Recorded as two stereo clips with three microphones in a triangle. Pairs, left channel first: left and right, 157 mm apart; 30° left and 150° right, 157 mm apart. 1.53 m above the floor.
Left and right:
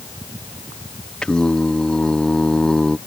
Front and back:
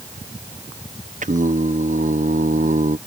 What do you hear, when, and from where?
1.2 s singing: 175° left